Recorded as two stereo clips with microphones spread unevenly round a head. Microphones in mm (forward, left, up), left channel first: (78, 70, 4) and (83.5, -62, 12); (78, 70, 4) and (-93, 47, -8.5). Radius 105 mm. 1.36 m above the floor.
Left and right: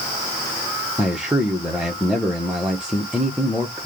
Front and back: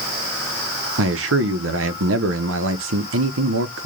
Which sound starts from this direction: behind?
A man speaking, at 1.0 s.